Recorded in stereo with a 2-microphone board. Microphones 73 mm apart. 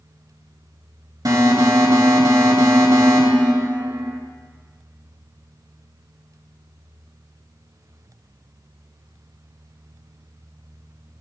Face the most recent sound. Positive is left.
turn(degrees=-55)  # may be behind; listen again after turning